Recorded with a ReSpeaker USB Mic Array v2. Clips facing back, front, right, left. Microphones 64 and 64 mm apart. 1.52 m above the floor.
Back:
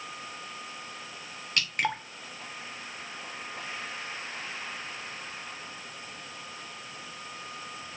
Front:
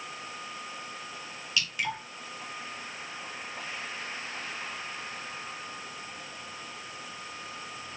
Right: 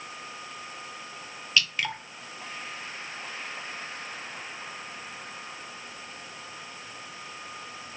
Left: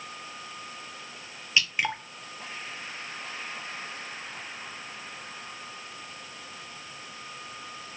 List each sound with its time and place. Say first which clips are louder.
1.6 s dripping: back 3 dB, left 1 dB; 155° left, 0.6 m